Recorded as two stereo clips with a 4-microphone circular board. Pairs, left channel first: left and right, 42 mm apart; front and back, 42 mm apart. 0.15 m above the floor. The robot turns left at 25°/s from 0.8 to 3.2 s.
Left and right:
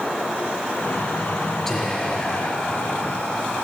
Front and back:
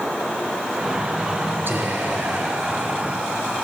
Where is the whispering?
170° left, 2 m; by 3.6 s 135° left, 2 m.